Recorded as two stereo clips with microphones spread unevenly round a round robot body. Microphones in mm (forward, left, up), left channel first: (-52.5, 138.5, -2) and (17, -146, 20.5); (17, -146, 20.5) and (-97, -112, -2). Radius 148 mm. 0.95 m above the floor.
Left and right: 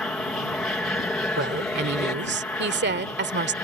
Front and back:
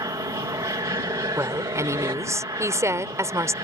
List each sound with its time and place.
0.0 s an aircraft: 175° right; by 3.6 s straight behind
1.4 s a woman speaking: 130° right